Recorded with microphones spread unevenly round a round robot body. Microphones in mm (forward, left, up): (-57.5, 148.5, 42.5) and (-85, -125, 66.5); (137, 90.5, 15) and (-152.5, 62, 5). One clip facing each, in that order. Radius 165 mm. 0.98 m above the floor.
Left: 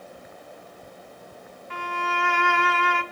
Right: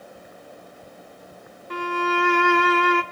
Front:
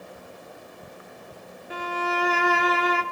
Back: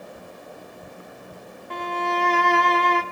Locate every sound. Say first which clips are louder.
1.7 s a violin: right 9 dB, back 2 dB; 75° right, 0.8 m